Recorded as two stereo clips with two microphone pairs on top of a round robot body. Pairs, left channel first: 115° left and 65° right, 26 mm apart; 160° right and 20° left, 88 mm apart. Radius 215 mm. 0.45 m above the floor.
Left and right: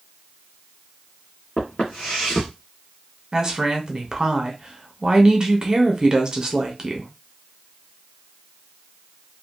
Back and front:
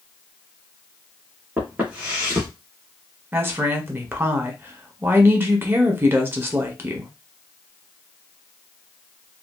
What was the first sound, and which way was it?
Footsteps, 100° left.